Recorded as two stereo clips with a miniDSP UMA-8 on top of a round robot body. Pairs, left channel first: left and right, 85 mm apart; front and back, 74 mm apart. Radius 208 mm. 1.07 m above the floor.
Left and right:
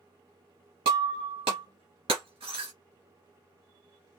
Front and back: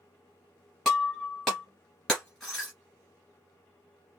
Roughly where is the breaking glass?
Right.